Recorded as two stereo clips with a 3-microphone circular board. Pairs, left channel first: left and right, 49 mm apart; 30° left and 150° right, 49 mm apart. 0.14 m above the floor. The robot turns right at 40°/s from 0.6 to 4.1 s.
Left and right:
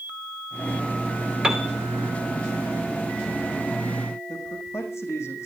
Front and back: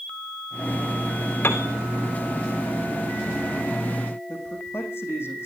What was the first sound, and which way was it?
A piano, 15° right.